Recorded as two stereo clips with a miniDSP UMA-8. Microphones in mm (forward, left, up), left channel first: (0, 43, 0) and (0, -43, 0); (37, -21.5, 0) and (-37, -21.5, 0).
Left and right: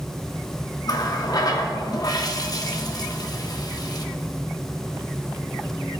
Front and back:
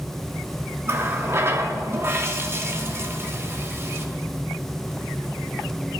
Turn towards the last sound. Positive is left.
turn(degrees=130)